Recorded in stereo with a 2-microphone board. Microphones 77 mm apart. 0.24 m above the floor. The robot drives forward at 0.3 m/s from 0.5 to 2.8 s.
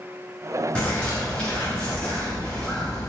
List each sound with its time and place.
0.8 s a bird: 15° left (ahead or behind), 1.7 m; by 3.1 s 10° left (ahead or behind), 2.5 m